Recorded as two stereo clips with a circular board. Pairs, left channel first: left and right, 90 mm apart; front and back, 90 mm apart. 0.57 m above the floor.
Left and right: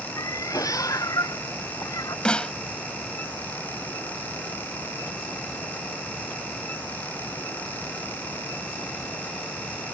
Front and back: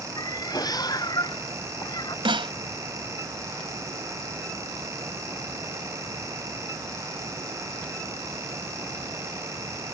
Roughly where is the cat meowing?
Ahead left.